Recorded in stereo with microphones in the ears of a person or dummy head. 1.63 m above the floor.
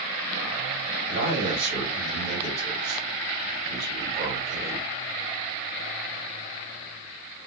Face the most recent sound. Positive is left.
turn(degrees=-60)  # may be behind; listen again after turning